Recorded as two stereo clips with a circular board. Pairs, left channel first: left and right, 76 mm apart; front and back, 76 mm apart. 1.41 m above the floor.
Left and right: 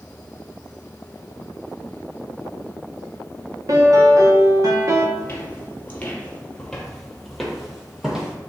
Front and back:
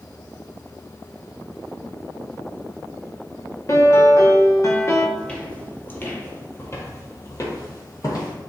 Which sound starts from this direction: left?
Footsteps, at 5.2 s.